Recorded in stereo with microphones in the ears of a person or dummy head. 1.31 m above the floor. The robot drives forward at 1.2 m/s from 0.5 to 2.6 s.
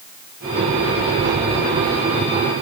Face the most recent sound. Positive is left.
No sound to turn to.